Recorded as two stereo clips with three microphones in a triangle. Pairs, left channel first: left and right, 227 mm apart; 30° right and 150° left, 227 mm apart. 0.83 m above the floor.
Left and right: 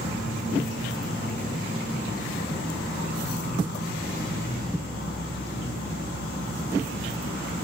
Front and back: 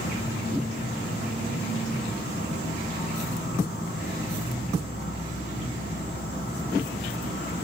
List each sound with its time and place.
0.0 s an insect: 80° right, 0.9 m